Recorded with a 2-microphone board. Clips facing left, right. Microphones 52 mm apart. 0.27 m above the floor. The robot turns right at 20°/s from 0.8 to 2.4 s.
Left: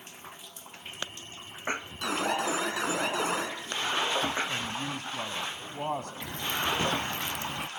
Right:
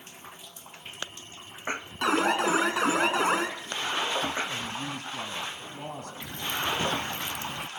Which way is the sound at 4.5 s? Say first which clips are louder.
Even; 55° left (ahead or behind).